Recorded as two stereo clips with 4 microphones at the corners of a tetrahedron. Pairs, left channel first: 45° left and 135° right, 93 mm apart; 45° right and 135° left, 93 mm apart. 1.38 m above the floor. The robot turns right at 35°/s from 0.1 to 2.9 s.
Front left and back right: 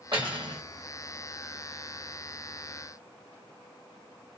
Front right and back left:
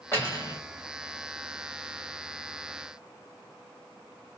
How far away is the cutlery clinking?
About 1.8 m.